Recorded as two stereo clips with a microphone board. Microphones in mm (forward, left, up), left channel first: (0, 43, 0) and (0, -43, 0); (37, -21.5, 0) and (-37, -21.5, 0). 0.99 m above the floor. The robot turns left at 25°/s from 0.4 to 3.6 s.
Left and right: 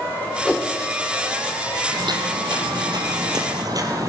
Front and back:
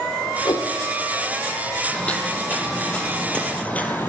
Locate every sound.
0.5 s a whoosh: 15° left, 1.2 m; by 0.7 s 5° left, 1.2 m
1.9 s footsteps: 70° right, 1.9 m; by 4.1 s 55° right, 1.5 m